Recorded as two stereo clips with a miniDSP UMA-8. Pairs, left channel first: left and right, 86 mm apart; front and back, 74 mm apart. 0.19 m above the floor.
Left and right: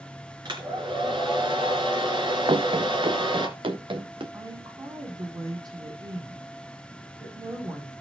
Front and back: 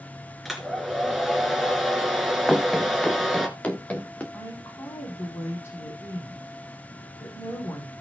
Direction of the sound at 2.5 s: 90° right.